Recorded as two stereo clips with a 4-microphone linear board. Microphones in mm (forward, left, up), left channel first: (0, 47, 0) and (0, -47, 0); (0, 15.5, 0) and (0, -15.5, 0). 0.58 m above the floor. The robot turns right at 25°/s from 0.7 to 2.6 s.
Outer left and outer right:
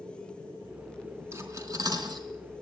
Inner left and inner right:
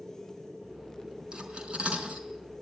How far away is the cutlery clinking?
About 4 m.